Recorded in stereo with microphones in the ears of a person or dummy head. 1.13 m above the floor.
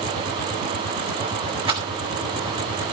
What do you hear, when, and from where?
1.7 s a rattle: 30° right (ahead or behind), 2.5 m